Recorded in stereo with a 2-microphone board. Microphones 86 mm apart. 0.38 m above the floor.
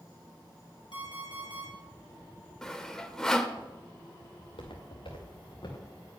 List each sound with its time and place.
0.9 s an alarm clock: 70° left (ahead or behind), 4.5 m
2.6 s sawing: 5° left (ahead or behind), 0.7 m
4.4 s footsteps: 85° left, 3 m; by 5.9 s 50° left (ahead or behind), 3 m